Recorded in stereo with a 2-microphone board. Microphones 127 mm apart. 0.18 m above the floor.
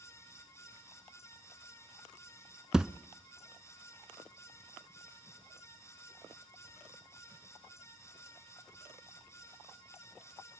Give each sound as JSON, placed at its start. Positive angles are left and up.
{"t": 2.7, "sound": "a thud", "side_deg": -5, "distance_m": 0.6}